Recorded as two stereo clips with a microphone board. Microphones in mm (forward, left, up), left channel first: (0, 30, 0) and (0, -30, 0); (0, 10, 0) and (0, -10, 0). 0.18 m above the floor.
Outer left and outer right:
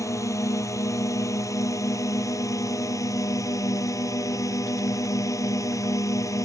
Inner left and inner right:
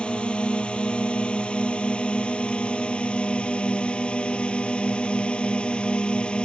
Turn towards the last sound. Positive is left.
turn(degrees=70)  # may be behind; listen again after turning